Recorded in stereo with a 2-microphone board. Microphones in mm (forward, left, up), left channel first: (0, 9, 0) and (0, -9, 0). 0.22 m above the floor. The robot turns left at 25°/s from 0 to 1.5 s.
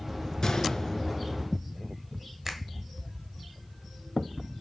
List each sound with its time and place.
0.4 s a gunshot: 45° left (ahead or behind), 1.5 m; by 1.4 s 65° left (ahead or behind), 1.5 m
2.5 s a finger snap: 20° right (ahead or behind), 1.5 m